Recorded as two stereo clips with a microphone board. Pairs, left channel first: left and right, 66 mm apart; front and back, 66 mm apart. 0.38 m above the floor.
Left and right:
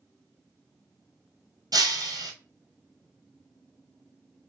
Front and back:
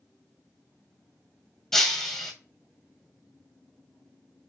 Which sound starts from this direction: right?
Breaking glass, at 1.7 s.